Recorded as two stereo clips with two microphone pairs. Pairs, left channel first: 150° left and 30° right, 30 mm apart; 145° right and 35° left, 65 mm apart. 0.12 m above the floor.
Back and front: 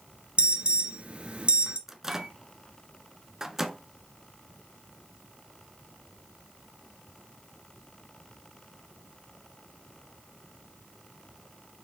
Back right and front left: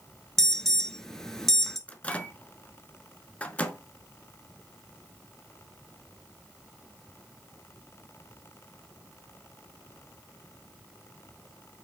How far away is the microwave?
About 0.9 m.